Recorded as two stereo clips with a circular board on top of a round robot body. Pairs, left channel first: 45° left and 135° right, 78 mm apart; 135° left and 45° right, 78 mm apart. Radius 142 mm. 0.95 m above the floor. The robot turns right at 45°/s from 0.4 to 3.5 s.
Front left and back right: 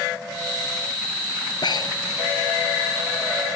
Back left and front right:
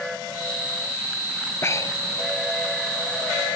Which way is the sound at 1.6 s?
75° left.